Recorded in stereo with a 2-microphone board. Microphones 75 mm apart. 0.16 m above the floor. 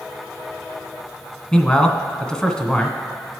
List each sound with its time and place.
1.5 s a man speaking: 10° left (ahead or behind), 1.2 m